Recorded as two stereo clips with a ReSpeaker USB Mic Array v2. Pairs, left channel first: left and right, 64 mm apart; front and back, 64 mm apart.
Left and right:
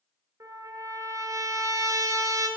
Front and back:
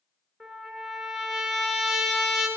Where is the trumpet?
85° right, 1.6 m.